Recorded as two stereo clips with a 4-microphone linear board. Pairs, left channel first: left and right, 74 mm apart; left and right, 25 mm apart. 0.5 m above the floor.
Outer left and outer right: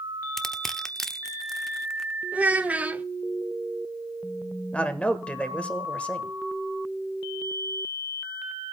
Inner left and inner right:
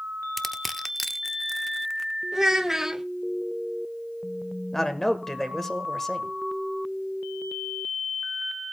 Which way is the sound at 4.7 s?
15° left (ahead or behind).